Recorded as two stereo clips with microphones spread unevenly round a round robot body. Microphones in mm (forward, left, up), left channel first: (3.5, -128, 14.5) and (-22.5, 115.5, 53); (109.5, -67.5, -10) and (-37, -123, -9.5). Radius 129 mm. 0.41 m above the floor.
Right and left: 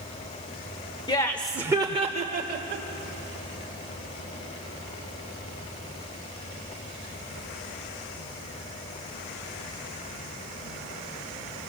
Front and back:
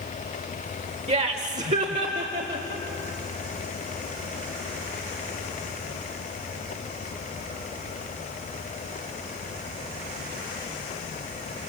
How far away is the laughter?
About 1.3 m.